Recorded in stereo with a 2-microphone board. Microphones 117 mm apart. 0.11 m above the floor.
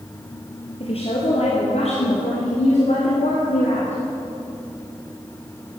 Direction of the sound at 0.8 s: 55° left (ahead or behind).